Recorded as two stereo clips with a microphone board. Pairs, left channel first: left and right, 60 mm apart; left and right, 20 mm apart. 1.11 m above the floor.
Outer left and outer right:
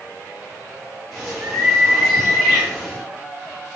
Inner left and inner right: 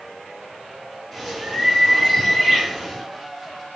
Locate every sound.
1.1 s a bird: 5° left (ahead or behind), 1.5 m